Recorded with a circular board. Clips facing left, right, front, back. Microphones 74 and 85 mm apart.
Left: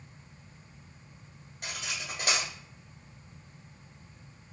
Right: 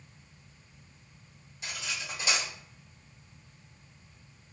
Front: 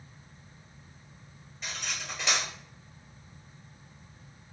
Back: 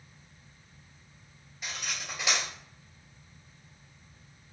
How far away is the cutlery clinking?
About 1.6 m.